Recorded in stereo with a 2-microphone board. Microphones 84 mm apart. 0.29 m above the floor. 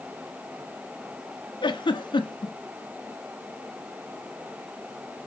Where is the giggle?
70° left (ahead or behind), 1.0 m.